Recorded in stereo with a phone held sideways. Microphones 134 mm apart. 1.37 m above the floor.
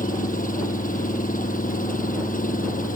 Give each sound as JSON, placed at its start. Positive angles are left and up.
{"t": 0.0, "sound": "an engine running", "side_deg": 90}